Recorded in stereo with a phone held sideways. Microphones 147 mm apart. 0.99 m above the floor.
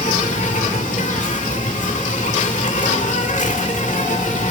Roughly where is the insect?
Left.